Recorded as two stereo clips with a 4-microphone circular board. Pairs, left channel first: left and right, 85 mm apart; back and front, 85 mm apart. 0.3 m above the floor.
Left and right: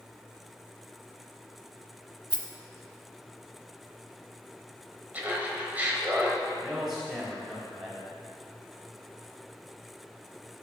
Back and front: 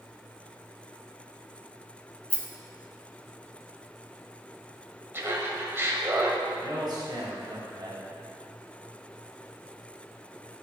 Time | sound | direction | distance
2.3 | a rattle | 105° right | 0.9 m
5.1 | laughter | 35° right | 1.2 m
6.6 | a man speaking | 5° right | 2.5 m